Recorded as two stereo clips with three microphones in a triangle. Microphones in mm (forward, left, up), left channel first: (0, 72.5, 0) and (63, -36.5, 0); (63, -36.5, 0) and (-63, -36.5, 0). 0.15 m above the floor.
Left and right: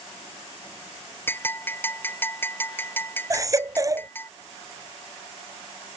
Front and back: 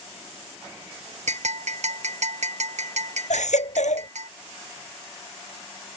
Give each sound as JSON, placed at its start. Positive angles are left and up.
{"t": 1.3, "sound": "a bell", "azimuth_deg": -170}
{"t": 3.3, "sound": "a baby crying", "azimuth_deg": 0}